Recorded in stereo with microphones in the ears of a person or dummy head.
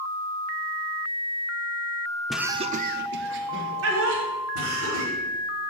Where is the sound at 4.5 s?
70° right (ahead or behind), 6 m.